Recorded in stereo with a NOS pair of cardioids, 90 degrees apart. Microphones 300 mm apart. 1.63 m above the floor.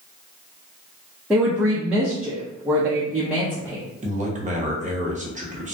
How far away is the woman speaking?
About 0.6 m.